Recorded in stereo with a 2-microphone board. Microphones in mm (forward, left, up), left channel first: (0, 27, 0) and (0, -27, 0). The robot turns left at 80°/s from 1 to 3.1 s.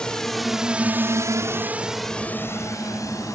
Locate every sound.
0.0 s a drone: 15° left (ahead or behind); by 3.4 s 75° left (ahead or behind)